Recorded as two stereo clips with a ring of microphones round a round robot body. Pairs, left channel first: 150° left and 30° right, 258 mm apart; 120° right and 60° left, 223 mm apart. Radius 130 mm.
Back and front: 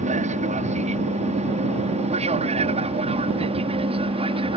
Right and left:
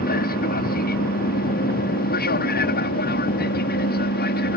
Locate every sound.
0.0 s an aircraft: 85° right; by 4.6 s 90° right